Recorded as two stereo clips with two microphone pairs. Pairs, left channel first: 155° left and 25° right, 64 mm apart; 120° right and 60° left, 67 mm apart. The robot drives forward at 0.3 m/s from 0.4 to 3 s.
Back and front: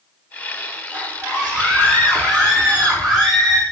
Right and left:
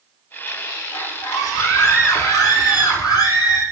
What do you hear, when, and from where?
0.9 s a scream: 105° right, 8 m; by 3.6 s 110° right, 8 m